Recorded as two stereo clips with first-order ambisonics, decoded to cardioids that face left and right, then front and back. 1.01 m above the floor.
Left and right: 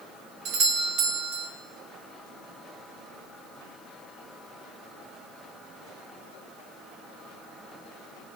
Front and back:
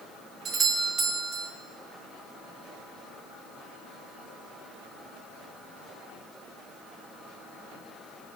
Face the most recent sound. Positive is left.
turn(degrees=-115)